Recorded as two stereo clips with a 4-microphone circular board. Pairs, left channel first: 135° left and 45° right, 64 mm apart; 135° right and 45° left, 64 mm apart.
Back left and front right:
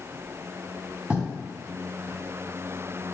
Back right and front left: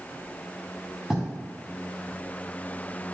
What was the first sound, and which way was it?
Writing, 20° right.